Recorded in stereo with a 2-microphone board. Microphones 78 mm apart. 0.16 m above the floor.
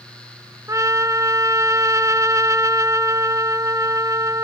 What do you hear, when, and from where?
0.7 s a trumpet: 45° right (ahead or behind)